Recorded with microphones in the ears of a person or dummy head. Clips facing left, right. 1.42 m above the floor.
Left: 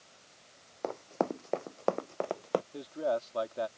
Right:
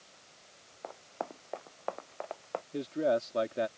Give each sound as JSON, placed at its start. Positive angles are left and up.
{"t": 0.8, "sound": "running footsteps", "side_deg": 60}
{"t": 2.7, "sound": "a man speaking", "side_deg": -35}